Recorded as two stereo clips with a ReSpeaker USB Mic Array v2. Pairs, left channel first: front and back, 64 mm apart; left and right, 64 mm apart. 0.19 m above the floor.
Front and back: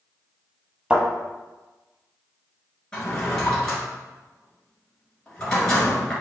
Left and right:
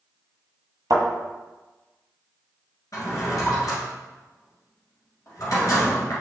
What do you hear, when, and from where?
0.9 s a thud: 105° right, 1.3 m
2.9 s a drawer: 75° left, 1.8 m